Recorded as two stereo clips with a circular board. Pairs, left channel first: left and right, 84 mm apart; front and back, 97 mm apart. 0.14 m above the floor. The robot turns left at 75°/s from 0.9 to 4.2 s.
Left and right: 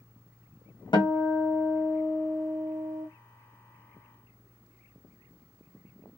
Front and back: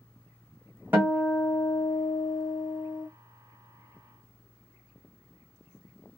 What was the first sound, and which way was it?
A guitar, 110° left.